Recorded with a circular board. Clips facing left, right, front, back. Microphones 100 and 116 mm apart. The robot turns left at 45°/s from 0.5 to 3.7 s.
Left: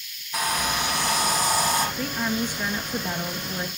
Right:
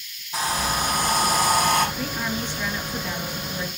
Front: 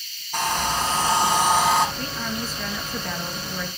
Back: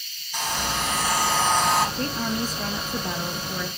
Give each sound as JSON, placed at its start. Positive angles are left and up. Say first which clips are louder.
{"t": 0.3, "sound": "a hair dryer", "louder": "right 1 dB, front 4 dB", "azimuth_deg": -30, "distance_m": 5.0}
{"t": 2.0, "sound": "a woman speaking", "louder": "left 1 dB, back 3 dB", "azimuth_deg": -175, "distance_m": 2.0}